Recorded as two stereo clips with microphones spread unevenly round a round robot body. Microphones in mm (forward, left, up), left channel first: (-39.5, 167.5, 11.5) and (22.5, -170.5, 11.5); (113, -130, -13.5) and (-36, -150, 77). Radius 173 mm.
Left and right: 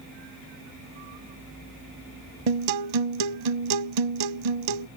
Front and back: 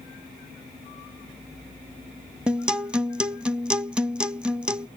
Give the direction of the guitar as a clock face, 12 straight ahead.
3 o'clock.